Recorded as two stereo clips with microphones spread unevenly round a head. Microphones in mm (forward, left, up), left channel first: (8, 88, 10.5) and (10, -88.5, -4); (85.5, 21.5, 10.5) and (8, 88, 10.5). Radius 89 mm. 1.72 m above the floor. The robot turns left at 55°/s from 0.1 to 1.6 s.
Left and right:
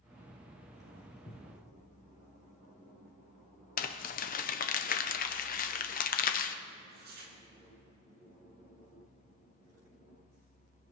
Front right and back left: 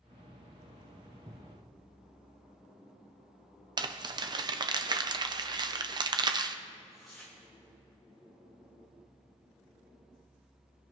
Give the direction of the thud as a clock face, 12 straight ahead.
8 o'clock.